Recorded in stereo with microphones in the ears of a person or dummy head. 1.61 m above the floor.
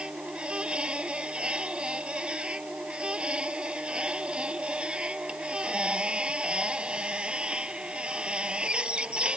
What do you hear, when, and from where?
0.0 s a machine running: 10° right (ahead or behind)